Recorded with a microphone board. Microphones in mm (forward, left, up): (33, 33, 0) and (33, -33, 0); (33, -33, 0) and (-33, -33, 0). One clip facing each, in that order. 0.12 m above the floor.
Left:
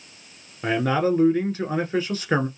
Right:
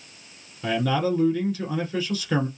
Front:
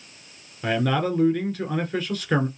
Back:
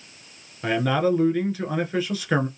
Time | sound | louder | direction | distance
0.6 | a man speaking | left 2 dB, back 2 dB | 100° left | 1.4 m